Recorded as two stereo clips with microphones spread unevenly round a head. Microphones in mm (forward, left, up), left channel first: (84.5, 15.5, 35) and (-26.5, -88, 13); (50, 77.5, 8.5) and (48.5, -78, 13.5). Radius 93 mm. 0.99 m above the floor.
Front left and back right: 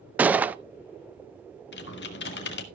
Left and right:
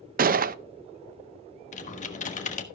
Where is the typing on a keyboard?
50° left, 1.4 m.